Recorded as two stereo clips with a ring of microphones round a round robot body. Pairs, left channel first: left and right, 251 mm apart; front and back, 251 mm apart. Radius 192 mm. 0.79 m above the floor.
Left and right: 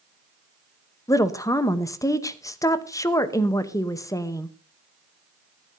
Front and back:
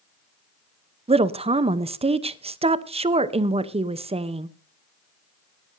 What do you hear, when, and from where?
1.1 s a woman speaking: 150° left, 0.8 m